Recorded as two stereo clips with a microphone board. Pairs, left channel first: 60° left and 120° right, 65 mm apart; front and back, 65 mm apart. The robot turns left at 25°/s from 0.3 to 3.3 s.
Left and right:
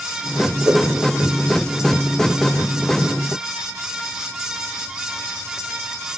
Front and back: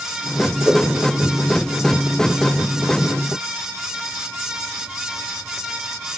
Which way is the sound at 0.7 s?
115° right.